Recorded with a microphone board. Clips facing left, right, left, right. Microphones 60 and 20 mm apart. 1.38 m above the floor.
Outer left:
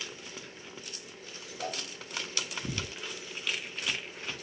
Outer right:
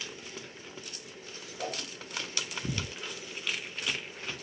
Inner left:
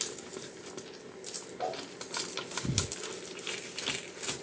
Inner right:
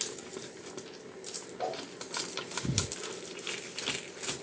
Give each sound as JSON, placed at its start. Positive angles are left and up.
{"t": 1.6, "sound": "a whoosh", "side_deg": -25, "distance_m": 1.5}